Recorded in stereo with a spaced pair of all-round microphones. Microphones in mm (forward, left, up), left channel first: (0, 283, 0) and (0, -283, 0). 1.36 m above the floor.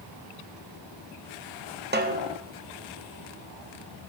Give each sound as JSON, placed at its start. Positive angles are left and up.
{"t": 1.9, "sound": "a snare drum", "side_deg": -20, "distance_m": 0.6}